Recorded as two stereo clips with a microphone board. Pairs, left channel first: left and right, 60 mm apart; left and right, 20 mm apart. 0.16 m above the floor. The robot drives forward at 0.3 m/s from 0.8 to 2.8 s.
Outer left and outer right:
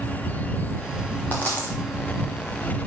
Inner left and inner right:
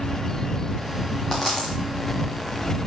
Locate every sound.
1.3 s a dropped coin: 30° left (ahead or behind), 4 m; by 1.8 s 25° left (ahead or behind), 4 m